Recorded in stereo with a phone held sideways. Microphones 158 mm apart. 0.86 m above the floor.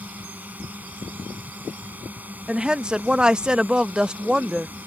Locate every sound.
0.0 s a drone: 10° right (ahead or behind)
2.5 s a woman speaking: 5° right (ahead or behind)